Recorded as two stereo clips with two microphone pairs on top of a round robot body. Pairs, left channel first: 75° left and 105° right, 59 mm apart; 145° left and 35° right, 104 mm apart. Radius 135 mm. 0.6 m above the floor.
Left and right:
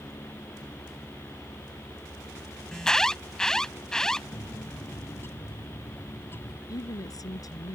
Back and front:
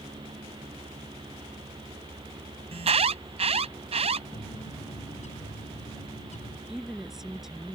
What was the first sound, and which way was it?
An alarm, 5° right.